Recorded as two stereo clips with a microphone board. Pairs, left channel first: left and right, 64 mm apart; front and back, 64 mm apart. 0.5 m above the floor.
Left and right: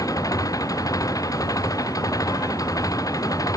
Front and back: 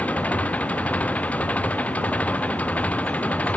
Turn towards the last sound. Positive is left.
turn(degrees=65)